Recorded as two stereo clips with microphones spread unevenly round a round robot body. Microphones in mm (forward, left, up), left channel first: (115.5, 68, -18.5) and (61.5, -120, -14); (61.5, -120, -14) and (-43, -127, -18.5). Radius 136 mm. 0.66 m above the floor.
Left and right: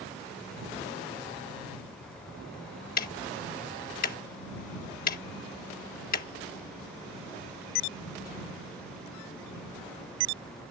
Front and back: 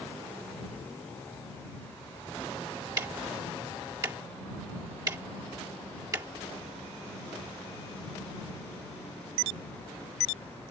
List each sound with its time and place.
3.0 s ticking: 120° left